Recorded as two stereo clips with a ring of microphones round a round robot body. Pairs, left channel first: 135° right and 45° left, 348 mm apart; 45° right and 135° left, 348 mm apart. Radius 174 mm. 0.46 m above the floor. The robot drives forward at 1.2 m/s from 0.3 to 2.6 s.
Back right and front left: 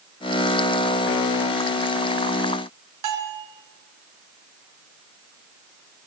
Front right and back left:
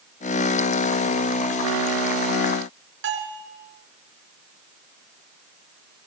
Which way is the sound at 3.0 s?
80° left.